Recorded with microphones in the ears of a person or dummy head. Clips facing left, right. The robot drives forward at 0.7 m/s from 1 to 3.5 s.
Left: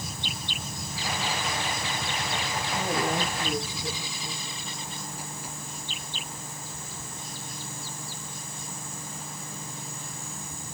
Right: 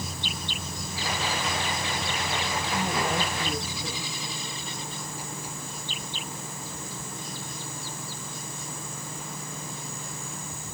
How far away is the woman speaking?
About 10 m.